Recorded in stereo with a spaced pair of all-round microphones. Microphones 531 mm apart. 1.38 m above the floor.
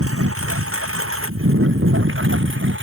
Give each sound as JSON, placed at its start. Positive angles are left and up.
{"t": 0.0, "sound": "a lawn mower", "side_deg": -25}